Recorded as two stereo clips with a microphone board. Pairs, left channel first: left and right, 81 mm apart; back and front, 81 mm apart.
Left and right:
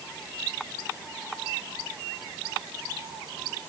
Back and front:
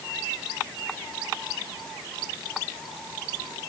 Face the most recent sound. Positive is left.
No sound to turn to.